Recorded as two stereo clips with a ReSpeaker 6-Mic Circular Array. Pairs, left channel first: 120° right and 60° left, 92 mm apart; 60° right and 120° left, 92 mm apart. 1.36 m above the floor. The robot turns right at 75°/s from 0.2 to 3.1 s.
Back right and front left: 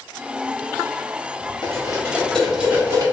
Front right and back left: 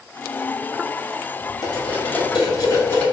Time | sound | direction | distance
1.6 | cutlery clinking | 95° right | 1.3 m